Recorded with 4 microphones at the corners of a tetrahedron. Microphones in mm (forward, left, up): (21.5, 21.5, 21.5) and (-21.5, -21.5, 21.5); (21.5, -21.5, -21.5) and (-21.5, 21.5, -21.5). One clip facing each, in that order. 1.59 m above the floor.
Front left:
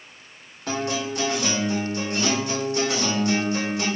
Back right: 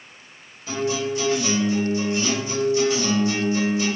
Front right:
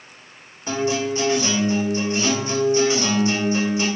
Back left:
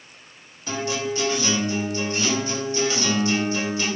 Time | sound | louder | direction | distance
0.7 | a guitar | back right 2 dB, front right 4 dB | 20° left | 3 m